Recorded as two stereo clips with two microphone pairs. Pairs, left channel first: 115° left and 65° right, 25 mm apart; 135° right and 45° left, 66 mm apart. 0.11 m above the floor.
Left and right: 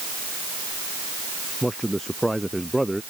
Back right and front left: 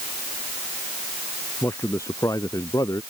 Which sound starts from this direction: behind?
A man speaking, at 1.6 s.